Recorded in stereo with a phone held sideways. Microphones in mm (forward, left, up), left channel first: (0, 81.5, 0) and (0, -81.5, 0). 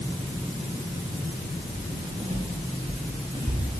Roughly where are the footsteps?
Right.